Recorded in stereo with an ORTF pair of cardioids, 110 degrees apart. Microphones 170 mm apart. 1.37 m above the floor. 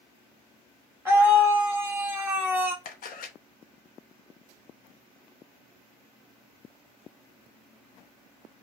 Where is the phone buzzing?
I don't hear a phone buzzing.